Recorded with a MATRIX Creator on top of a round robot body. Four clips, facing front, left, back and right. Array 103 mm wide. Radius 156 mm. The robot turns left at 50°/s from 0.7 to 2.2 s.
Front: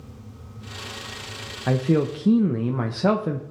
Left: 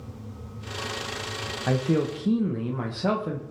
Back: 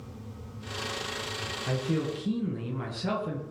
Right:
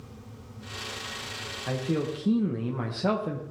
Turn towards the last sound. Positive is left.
turn(degrees=0)